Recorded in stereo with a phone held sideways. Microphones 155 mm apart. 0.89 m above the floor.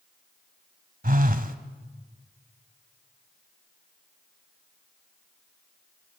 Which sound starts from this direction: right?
A phone buzzing, at 1.0 s.